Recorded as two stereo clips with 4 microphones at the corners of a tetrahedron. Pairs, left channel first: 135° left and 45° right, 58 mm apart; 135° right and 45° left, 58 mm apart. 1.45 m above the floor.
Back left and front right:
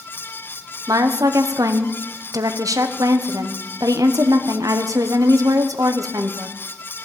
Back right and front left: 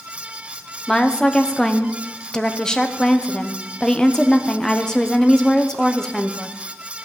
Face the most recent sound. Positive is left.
turn(degrees=-55)